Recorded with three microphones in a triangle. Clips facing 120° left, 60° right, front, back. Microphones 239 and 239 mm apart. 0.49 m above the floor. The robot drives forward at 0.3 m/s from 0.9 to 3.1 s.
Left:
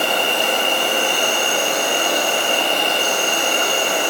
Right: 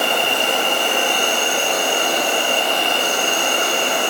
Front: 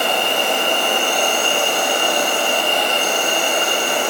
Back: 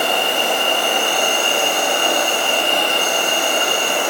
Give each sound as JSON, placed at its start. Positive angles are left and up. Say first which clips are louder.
{"t": 0.0, "sound": "an insect", "louder": "even, even", "azimuth_deg": 95, "distance_m": 1.1}